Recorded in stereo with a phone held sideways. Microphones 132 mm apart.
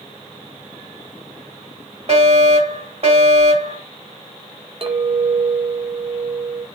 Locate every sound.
2.1 s a fire alarm: 50° right (ahead or behind), 2.5 m
4.8 s a clink: 45° right (ahead or behind), 1.0 m